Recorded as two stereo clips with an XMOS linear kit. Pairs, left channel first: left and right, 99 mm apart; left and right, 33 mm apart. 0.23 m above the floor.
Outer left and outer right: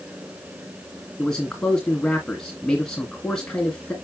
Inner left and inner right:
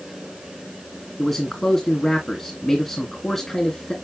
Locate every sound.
1.2 s a man speaking: 5° left (ahead or behind), 2.5 m